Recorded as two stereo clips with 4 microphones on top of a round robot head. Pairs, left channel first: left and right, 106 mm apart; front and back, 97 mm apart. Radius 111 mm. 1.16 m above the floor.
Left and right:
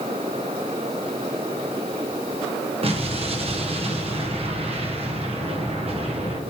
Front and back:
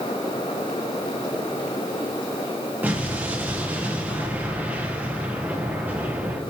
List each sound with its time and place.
2.8 s an explosion: 110° right, 1.3 m